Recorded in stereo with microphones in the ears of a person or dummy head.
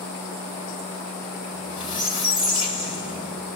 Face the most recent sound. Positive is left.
turn(degrees=35)  # may be behind; listen again after turning